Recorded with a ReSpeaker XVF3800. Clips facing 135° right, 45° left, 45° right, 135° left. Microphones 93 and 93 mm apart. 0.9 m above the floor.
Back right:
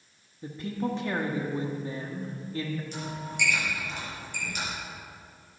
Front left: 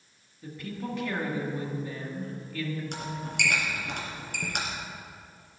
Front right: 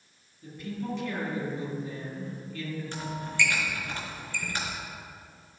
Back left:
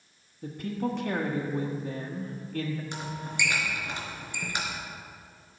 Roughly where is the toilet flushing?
I don't hear a toilet flushing.